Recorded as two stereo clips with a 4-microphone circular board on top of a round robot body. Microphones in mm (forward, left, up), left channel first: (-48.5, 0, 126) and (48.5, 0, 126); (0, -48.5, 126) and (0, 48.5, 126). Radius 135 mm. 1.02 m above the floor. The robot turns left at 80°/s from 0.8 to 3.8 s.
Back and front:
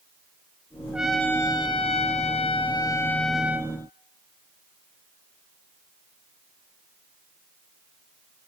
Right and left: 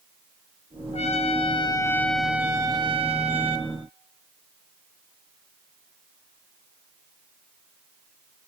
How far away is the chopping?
No chopping in this recording.